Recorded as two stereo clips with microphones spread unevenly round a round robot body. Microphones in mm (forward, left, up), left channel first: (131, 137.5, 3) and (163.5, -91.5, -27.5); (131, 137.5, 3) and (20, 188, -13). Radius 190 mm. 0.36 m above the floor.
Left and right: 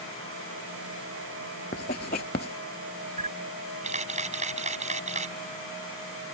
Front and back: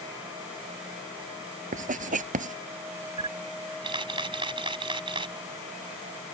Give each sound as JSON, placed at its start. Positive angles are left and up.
{"t": 1.7, "sound": "writing", "azimuth_deg": 165}
{"t": 3.2, "sound": "a camera shutter", "azimuth_deg": -145}